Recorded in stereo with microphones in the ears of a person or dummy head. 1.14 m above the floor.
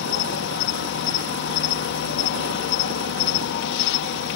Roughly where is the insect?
Left.